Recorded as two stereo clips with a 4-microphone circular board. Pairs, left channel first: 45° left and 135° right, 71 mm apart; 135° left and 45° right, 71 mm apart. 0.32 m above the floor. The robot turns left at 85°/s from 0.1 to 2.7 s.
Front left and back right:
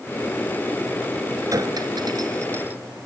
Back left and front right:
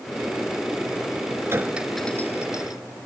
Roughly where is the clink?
Right.